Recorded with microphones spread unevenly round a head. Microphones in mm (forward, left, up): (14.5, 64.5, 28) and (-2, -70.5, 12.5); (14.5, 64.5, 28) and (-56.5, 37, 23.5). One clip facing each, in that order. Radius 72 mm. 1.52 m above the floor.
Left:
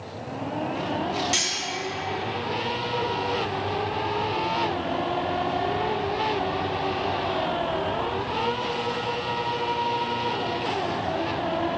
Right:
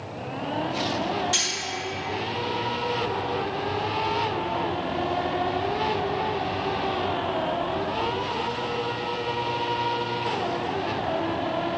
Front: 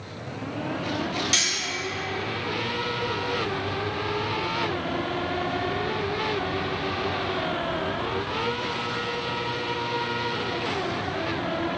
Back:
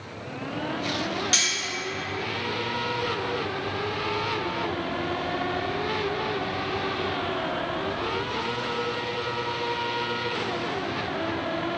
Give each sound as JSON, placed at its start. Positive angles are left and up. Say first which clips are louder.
{"t": 1.3, "sound": "cutlery clinking", "louder": "left 1 dB, even", "azimuth_deg": 160, "distance_m": 1.3}